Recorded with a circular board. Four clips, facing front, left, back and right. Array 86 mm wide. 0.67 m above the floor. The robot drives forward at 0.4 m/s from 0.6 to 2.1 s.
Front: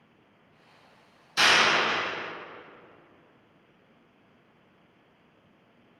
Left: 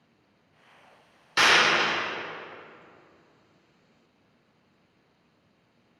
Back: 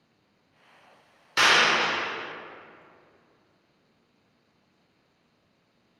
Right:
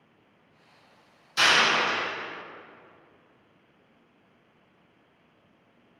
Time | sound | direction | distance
1.4 | a clap | 125° left | 1.6 m